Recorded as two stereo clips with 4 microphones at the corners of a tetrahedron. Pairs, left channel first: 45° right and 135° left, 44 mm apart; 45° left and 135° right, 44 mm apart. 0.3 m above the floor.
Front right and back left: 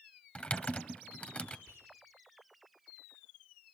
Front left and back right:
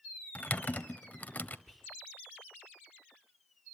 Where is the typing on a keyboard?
10° left, 1.0 m.